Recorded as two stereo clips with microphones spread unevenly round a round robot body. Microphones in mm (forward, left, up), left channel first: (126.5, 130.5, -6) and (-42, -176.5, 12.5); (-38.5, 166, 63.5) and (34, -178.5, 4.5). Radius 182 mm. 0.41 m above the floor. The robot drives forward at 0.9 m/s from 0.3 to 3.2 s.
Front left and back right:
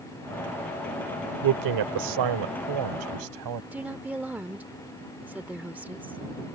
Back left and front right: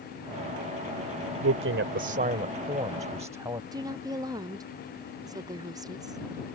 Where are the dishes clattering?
I don't hear dishes clattering.